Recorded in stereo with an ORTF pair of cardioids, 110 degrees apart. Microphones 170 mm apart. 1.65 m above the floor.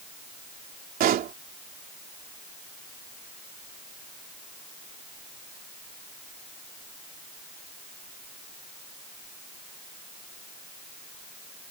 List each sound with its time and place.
1.0 s a pop: 55° right